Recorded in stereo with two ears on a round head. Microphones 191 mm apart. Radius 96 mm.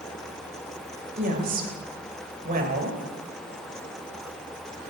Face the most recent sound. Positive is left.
turn(degrees=-40)  # may be behind; listen again after turning